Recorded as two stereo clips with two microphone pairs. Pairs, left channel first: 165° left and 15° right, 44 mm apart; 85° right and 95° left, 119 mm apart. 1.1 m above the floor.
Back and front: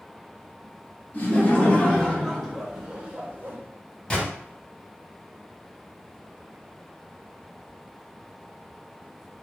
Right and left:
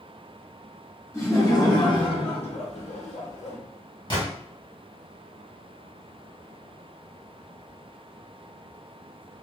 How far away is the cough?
No cough in this recording.